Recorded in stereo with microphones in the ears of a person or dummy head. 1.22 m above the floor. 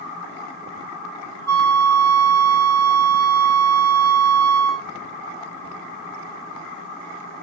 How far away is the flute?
About 3 m.